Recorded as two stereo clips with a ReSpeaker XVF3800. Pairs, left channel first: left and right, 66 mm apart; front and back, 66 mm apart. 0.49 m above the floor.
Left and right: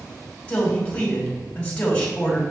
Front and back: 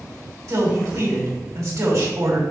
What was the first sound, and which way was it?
A man speaking, 160° left.